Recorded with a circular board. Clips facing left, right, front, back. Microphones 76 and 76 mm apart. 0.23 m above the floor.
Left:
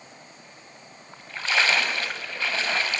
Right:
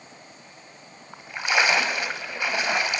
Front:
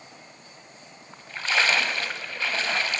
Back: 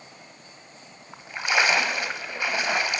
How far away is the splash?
About 1.7 m.